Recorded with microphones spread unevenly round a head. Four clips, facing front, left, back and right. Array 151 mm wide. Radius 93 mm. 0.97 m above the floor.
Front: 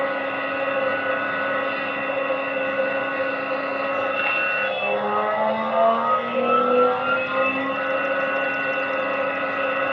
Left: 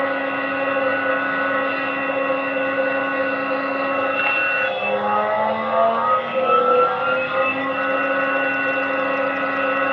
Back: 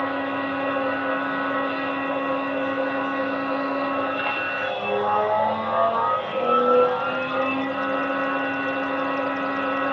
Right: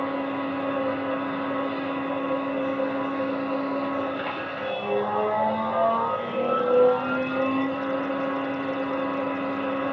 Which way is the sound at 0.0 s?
85° left.